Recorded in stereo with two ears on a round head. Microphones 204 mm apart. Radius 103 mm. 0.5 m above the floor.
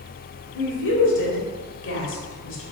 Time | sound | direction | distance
0.6 | a woman speaking | 55° left (ahead or behind) | 1.8 m